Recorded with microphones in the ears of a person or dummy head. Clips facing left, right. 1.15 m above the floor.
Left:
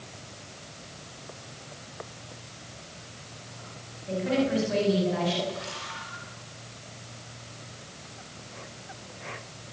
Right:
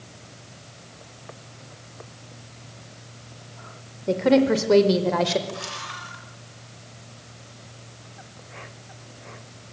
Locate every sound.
4.1 s a woman speaking: 80° right, 4 m; by 5.4 s 85° right, 4.5 m
5.5 s a camera shutter: 60° right (ahead or behind), 6 m